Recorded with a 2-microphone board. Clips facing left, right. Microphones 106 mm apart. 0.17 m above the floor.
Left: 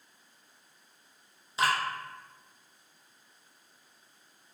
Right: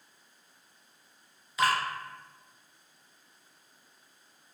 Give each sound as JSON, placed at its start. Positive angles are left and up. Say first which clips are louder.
{"t": 1.6, "sound": "dripping", "louder": "right 1 dB", "side_deg": 30, "distance_m": 1.0}